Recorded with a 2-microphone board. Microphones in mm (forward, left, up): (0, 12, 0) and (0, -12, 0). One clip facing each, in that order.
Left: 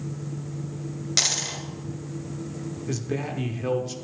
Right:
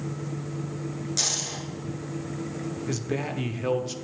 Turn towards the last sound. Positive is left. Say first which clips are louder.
# left 1 dB
turn(degrees=-15)  # may be behind; listen again after turning